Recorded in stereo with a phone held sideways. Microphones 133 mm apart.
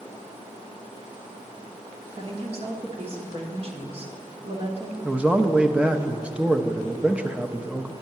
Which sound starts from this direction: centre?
A man speaking, at 5.0 s.